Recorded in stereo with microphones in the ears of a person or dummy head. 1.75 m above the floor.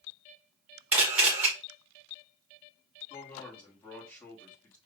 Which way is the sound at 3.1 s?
15° left (ahead or behind).